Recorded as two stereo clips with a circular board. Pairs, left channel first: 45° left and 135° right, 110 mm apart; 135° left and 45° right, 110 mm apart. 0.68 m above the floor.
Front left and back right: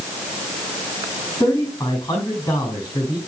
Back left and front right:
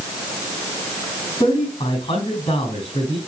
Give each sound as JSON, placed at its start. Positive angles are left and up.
{"t": 1.4, "sound": "a man speaking", "azimuth_deg": 105, "distance_m": 6.5}